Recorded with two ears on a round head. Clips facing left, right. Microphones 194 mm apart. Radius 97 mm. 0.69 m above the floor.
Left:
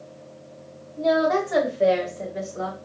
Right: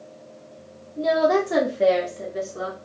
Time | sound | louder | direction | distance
1.0 | a woman speaking | right 1 dB | 60° right (ahead or behind) | 1.8 m